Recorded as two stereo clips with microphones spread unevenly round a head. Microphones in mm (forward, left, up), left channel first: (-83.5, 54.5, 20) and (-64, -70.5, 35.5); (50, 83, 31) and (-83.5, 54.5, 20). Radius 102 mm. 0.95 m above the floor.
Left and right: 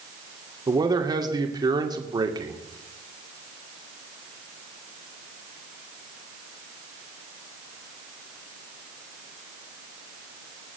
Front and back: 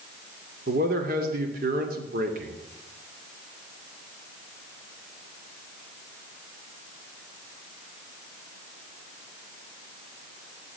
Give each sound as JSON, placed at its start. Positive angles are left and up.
{"t": 0.7, "sound": "a man speaking", "azimuth_deg": -140, "distance_m": 2.5}